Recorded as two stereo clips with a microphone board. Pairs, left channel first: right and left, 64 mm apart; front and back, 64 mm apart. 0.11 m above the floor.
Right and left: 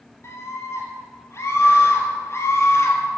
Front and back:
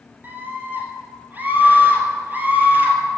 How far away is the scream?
About 3 m.